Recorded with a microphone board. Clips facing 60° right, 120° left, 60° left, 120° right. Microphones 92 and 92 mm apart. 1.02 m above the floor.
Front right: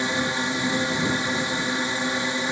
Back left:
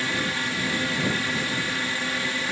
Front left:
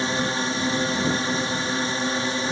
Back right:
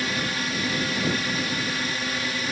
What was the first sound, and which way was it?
A drone, 5° left.